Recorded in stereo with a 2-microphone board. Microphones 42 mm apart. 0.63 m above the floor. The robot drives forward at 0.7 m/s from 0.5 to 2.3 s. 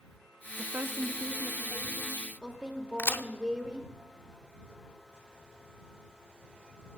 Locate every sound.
0.6 s a woman speaking: 50° right (ahead or behind), 0.8 m; by 3.9 s 25° right (ahead or behind), 1.6 m
3.0 s a crack: 55° left (ahead or behind), 0.6 m